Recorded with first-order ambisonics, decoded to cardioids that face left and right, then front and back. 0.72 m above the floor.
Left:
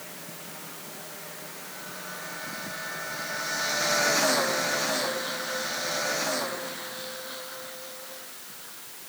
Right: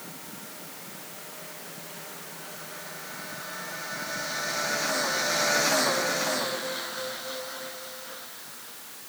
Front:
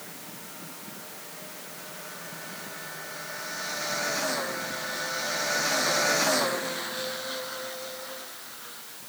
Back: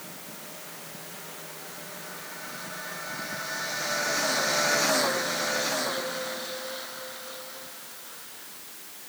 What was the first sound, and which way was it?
Only background noise.